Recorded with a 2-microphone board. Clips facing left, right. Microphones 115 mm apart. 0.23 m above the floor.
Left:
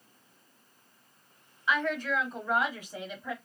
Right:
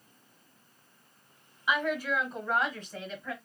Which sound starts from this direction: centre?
A woman speaking, at 1.7 s.